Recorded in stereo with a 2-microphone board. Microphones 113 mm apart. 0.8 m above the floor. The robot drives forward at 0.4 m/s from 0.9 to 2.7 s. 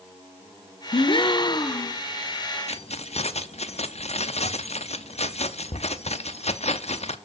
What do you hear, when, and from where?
0.9 s a gasp: 50° left (ahead or behind), 0.6 m; by 2.0 s 30° left (ahead or behind), 1.0 m
2.7 s keys jangling: 70° left (ahead or behind), 0.8 m